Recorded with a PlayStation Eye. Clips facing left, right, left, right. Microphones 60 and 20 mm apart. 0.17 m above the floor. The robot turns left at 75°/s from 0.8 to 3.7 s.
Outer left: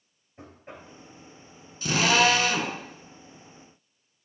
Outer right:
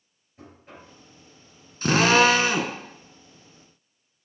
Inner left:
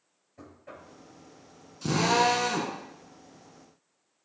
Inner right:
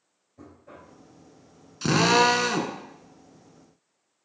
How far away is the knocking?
About 2.5 m.